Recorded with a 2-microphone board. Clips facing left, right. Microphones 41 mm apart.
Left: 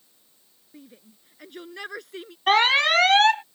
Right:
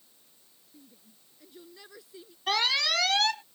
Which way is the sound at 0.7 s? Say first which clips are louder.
Left 9 dB; 65° left (ahead or behind).